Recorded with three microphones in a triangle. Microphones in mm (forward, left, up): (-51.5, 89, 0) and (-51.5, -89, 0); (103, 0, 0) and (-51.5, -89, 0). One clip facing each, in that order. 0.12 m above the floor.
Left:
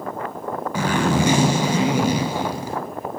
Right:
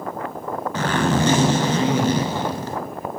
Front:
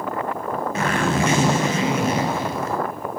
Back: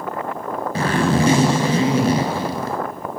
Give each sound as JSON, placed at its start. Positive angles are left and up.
{"t": 0.8, "sound": "a zipper", "azimuth_deg": 165, "distance_m": 0.8}